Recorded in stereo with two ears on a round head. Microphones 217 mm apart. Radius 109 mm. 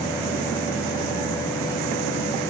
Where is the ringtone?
No ringtone in this recording.